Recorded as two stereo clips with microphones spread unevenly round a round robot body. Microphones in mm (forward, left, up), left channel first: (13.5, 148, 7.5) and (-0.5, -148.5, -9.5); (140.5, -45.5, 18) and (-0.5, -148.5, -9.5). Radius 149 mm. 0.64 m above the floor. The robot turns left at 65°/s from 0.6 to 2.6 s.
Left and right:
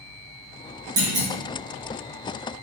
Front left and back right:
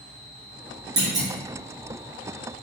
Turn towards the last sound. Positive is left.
turn(degrees=120)